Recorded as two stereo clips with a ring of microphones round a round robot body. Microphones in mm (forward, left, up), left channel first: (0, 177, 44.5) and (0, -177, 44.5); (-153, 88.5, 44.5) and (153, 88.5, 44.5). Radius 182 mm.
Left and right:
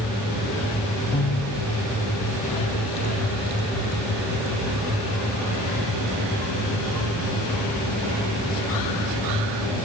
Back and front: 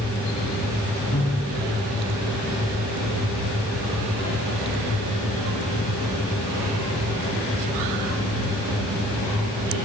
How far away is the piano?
About 7.5 m.